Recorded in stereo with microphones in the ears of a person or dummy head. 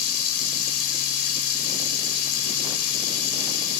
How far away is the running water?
About 3 m.